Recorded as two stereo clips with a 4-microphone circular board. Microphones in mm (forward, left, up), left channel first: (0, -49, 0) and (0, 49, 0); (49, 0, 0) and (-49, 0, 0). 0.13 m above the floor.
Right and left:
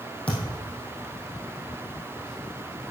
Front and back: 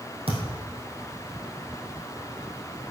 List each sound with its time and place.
0.3 s a thud: 170° right, 3 m